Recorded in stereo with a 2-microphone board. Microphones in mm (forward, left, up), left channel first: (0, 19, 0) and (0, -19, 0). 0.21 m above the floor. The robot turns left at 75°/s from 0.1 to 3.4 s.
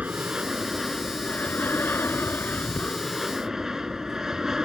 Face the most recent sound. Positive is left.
turn(degrees=-15)